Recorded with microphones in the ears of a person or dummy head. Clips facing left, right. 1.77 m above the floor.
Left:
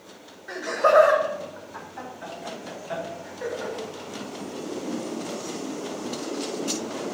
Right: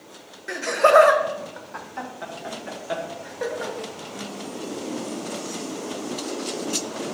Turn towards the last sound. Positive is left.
turn(degrees=-70)  # may be behind; listen again after turning